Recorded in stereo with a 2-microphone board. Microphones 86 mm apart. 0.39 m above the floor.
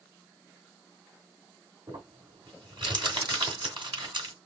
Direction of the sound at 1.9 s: 65° right (ahead or behind).